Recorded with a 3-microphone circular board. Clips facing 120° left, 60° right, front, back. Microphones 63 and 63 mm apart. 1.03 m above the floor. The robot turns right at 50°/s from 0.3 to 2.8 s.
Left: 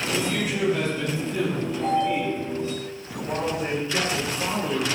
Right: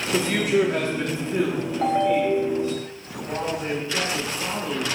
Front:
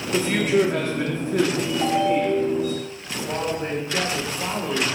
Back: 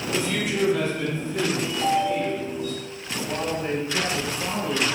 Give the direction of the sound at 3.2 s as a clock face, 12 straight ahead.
11 o'clock.